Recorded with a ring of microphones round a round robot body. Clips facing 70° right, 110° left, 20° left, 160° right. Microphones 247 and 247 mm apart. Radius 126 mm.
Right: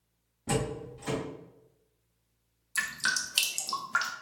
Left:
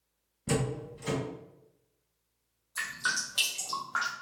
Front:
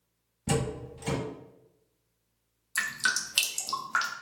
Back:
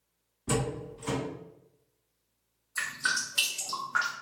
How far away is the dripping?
About 0.6 m.